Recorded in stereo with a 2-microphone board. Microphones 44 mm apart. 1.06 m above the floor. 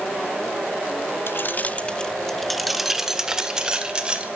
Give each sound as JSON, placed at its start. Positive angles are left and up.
{"t": 1.3, "sound": "keys jangling", "side_deg": 55, "distance_m": 1.0}